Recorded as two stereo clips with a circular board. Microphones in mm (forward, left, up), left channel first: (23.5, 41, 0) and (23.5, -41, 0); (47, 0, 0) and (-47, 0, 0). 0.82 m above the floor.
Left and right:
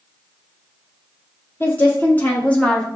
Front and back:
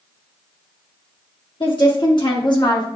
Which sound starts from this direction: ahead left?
A woman speaking, at 1.6 s.